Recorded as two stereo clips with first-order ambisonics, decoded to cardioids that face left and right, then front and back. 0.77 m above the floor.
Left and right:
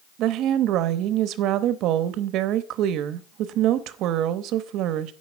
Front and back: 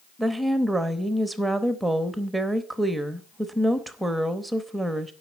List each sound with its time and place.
0.2 s a woman speaking: 95° right, 0.8 m